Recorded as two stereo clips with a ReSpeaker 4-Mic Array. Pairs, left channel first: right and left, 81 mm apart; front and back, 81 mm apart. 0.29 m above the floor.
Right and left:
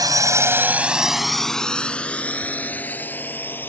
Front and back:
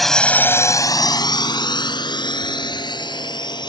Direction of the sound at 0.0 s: 90° left.